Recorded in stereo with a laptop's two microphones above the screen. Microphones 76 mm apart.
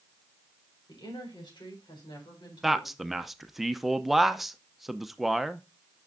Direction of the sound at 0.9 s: 85° left.